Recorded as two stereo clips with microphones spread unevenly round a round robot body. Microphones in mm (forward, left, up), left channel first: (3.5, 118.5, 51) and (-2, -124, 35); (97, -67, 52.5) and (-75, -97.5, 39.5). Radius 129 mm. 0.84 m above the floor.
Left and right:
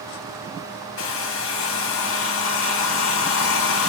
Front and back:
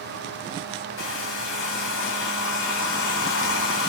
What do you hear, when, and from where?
1.0 s a hair dryer: 50° left, 0.5 m